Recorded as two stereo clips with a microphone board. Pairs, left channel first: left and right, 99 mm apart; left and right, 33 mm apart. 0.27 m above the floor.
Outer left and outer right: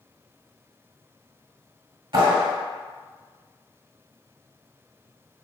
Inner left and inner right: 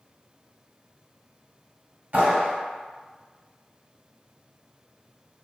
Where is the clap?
50° right (ahead or behind), 1.3 m.